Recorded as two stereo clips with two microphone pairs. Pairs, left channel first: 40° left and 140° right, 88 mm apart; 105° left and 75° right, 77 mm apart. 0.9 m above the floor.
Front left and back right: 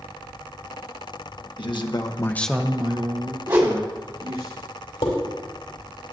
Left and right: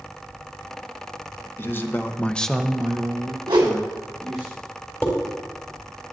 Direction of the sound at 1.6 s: 45° left.